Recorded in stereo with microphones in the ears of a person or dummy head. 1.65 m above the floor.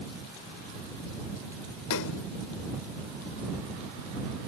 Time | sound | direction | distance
1.9 | a splash | 65° left (ahead or behind) | ?